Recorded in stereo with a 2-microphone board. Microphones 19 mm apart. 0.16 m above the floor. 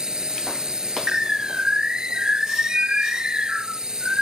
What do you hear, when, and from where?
0.0 s a drone: 40° right (ahead or behind)
1.1 s a bird: 50° right (ahead or behind)